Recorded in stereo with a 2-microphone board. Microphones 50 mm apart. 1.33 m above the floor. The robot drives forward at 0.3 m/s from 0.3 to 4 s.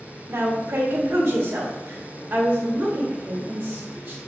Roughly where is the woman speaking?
Right.